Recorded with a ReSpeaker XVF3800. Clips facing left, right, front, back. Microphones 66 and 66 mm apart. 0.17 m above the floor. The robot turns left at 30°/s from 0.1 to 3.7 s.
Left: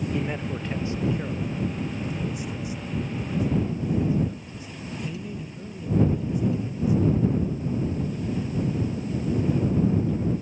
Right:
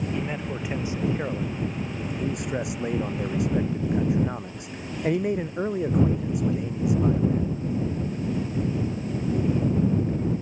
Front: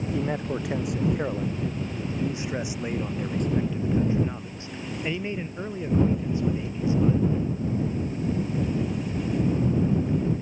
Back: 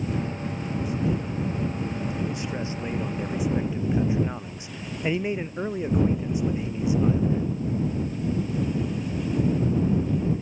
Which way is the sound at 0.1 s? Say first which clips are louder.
Left 1 dB, front 3 dB; straight ahead.